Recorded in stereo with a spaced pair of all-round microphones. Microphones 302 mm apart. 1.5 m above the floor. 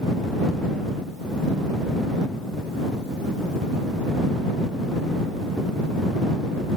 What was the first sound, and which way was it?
Only background noise.